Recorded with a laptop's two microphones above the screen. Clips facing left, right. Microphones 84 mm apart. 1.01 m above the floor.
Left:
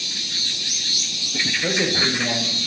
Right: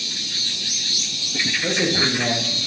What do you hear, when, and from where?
1.6 s a man speaking: 15° left (ahead or behind), 0.7 m; by 2.7 s 50° right (ahead or behind), 1.1 m